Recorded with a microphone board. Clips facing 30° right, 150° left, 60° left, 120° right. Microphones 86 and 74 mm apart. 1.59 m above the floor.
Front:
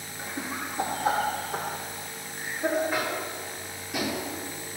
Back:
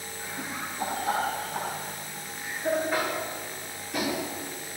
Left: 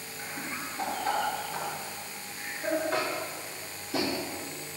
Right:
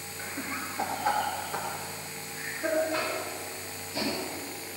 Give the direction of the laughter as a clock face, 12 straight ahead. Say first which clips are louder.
Front 2 dB, right 2 dB; 1 o'clock.